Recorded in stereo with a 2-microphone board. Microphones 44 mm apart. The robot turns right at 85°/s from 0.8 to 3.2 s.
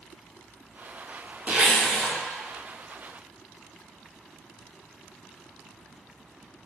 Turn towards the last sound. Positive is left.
turn(degrees=110)